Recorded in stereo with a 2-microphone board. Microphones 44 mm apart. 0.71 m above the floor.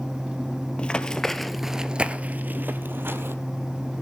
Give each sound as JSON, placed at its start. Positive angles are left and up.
{"t": 0.8, "sound": "running footsteps", "side_deg": 25, "distance_m": 1.0}